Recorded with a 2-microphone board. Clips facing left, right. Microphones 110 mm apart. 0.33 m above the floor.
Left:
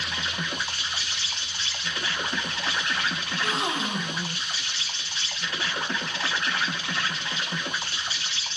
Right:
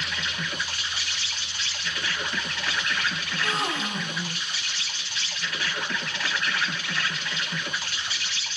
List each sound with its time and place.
0.0 s an insect: 30° left (ahead or behind), 0.9 m
3.3 s a gasp: 20° left (ahead or behind), 1.1 m